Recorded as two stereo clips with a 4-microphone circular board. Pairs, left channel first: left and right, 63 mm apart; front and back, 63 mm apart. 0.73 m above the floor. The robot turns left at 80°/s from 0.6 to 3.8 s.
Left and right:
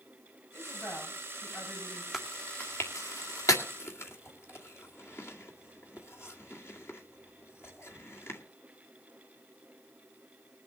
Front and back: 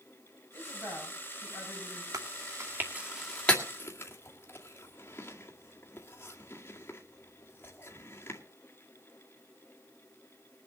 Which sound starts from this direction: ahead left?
A woman speaking, at 0.5 s.